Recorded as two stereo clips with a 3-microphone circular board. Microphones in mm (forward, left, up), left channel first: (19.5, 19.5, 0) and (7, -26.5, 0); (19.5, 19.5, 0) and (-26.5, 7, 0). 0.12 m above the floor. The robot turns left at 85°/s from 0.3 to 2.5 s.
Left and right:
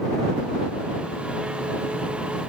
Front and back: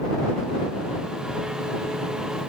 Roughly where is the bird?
I don't hear a bird.